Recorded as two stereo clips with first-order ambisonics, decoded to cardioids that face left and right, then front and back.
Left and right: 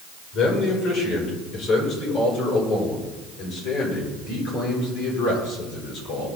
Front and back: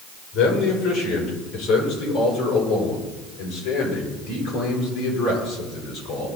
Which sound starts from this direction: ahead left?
A man speaking, at 0.3 s.